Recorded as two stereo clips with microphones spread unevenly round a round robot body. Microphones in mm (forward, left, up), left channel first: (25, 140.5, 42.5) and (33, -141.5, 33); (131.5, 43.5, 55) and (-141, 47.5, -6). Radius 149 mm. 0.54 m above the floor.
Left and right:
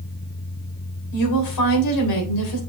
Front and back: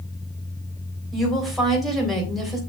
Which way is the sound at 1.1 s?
95° left.